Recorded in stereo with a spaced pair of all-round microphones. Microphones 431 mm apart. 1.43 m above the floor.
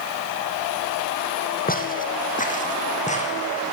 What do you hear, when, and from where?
1.7 s footsteps: 20° left (ahead or behind), 3.5 m; by 3.7 s 15° left (ahead or behind), 5.5 m